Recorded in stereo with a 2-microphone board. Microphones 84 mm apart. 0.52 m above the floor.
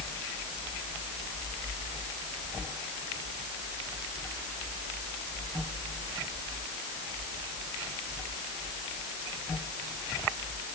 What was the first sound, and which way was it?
Only background noise.